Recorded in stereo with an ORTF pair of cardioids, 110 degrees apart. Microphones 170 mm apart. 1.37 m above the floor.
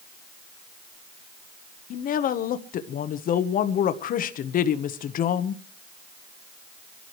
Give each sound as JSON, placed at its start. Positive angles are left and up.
{"t": 1.9, "sound": "a woman speaking", "azimuth_deg": 55, "distance_m": 1.1}